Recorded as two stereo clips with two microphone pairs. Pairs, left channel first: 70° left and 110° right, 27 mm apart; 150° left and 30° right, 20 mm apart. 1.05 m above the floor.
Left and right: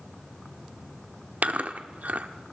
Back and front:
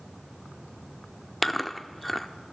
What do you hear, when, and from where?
1.4 s chewing: 120° right, 1.1 m